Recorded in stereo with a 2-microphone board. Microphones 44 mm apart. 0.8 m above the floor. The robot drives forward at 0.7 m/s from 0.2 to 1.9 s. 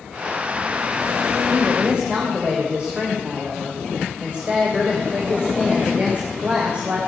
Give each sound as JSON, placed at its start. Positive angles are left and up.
{"t": 1.5, "sound": "a woman speaking", "side_deg": -25, "distance_m": 3.0}